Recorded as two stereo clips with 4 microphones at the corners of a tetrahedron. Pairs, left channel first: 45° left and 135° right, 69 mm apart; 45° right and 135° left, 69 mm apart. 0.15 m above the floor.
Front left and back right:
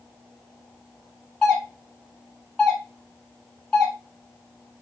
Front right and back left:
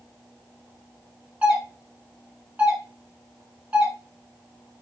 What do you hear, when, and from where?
1.4 s a doorbell: 120° left, 1.6 m